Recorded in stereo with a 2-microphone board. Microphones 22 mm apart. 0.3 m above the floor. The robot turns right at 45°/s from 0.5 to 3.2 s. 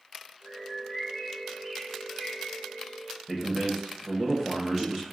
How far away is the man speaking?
About 1.0 m.